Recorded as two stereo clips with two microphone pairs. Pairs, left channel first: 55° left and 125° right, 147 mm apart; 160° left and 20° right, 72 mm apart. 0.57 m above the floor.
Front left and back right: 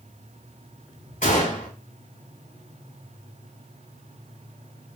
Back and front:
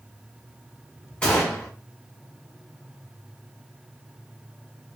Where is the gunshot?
85° left, 2.5 m.